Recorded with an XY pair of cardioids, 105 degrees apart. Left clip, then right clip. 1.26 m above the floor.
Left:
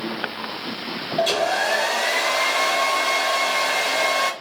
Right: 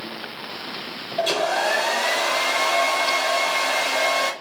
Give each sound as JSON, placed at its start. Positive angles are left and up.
{"t": 1.2, "sound": "a hair dryer", "azimuth_deg": 15, "distance_m": 1.0}